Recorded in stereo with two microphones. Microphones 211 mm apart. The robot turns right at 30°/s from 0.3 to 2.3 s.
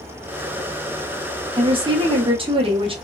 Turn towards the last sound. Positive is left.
turn(degrees=-25)  # may be behind; listen again after turning